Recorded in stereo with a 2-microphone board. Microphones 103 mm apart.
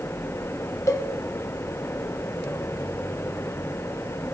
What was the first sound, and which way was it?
A cowbell, 25° left (ahead or behind).